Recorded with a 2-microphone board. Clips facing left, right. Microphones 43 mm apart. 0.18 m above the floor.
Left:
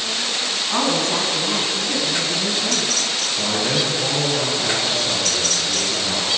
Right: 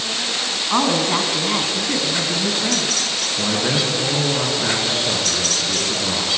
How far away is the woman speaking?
About 1.4 m.